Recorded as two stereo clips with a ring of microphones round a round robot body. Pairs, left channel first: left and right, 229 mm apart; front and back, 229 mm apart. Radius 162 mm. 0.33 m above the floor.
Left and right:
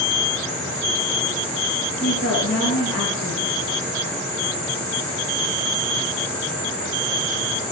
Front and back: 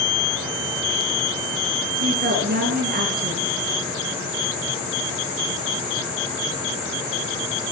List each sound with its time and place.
2.0 s a woman speaking: 130° left, 4 m